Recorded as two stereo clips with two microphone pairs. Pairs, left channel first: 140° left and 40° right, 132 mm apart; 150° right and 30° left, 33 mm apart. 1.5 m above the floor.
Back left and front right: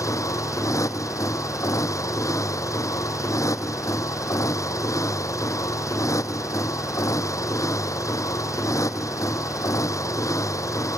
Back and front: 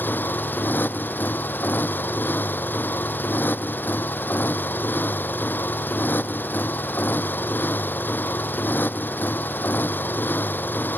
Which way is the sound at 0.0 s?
155° right.